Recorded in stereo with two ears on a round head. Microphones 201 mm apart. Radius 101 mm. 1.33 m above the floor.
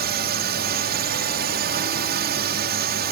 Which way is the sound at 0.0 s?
45° right (ahead or behind).